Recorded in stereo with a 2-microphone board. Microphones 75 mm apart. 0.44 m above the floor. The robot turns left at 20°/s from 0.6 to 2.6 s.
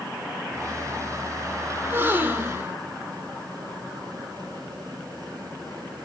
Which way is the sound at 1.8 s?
30° right (ahead or behind).